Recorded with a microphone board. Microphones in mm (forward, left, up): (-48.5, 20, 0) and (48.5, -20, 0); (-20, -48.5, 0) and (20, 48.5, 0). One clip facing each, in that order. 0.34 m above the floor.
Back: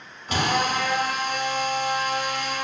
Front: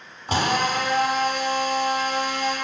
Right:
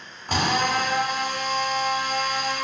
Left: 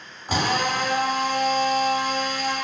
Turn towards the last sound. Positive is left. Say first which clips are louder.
# front 1 dB, even
turn(degrees=-15)